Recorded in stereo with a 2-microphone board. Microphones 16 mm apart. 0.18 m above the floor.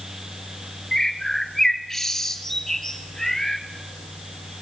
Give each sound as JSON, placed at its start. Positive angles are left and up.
{"t": 0.9, "sound": "a bird", "side_deg": 20, "distance_m": 1.7}